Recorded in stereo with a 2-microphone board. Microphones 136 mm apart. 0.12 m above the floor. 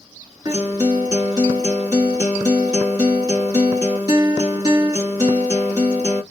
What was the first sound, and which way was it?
A guitar, 30° right (ahead or behind).